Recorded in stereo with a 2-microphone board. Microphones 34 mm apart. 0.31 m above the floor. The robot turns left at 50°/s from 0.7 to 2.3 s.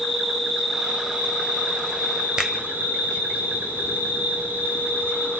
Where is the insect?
20° right, 4.5 m; by 5.4 s 100° right, 4.5 m.